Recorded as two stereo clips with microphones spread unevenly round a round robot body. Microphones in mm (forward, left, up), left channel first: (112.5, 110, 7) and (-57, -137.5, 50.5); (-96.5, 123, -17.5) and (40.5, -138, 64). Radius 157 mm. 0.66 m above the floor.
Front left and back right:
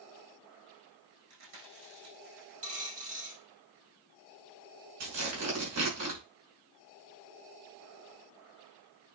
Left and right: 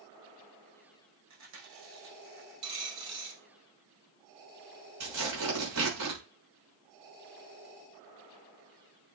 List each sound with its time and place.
1.3 s chewing: 90° right, 5.5 m
2.6 s a dropped coin: 60° right, 3.5 m
5.0 s tearing paper: 85° right, 6 m